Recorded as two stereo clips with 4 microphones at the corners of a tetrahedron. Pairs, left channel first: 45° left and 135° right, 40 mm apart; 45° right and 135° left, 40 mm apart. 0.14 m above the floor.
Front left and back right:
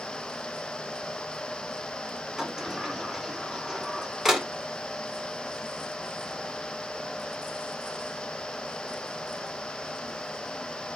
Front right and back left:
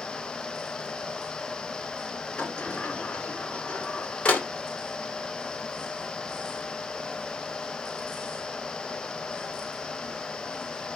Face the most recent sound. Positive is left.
turn(degrees=-70)